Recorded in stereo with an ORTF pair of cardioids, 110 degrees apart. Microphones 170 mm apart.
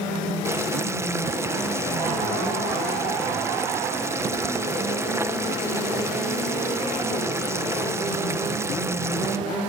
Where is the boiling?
15° right, 1.2 m.